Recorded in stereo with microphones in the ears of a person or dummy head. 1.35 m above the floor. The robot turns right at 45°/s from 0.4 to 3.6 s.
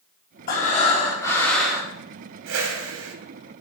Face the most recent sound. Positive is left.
turn(degrees=-60)